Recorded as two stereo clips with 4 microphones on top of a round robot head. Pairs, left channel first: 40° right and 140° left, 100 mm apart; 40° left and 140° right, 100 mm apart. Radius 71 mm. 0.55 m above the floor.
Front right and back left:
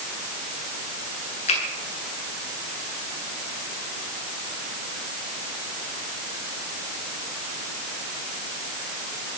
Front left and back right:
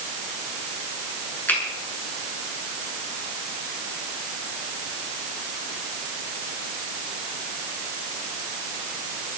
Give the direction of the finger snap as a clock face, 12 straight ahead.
1 o'clock.